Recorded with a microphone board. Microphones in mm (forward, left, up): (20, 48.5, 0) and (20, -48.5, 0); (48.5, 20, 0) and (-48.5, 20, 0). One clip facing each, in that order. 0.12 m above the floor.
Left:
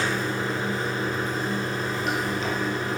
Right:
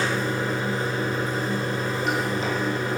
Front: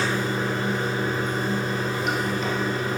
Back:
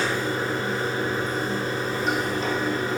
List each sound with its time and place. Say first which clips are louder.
0.0 s running water: right 1 dB, even; 135° right, 1.2 m